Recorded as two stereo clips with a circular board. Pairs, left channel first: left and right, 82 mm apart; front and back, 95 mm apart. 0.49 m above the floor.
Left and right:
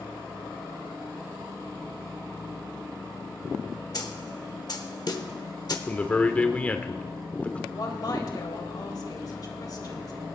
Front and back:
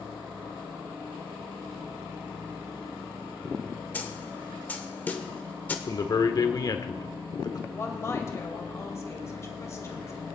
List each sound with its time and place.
3.9 s a snare drum: 70° left, 1.0 m
5.9 s a man speaking: 20° left, 1.0 m
7.7 s a woman speaking: 55° left, 2.0 m